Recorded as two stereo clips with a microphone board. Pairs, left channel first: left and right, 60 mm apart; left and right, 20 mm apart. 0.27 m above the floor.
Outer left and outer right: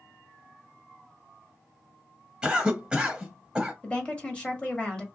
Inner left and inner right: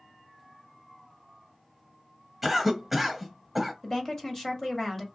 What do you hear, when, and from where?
2.4 s a cough: 15° right (ahead or behind), 1.2 m
3.8 s a woman speaking: 20° left (ahead or behind), 1.1 m